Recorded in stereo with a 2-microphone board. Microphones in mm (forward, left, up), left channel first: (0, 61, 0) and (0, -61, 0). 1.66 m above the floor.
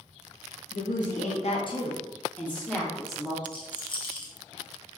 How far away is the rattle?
About 0.6 m.